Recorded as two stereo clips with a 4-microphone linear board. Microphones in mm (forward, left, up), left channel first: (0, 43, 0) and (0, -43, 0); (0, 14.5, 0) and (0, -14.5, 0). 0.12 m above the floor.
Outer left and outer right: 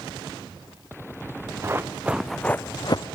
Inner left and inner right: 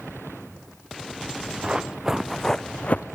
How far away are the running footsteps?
About 1.0 m.